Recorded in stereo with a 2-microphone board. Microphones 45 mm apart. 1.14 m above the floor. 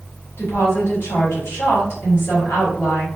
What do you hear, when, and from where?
0.4 s a woman speaking: 65° left (ahead or behind), 1.2 m